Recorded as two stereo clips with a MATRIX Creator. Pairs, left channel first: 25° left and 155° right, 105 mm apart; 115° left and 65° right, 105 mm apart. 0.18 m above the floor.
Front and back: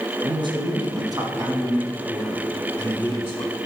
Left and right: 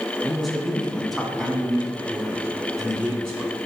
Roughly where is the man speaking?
Behind.